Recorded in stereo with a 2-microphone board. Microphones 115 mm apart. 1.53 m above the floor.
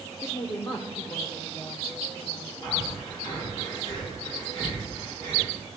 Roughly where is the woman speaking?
Left.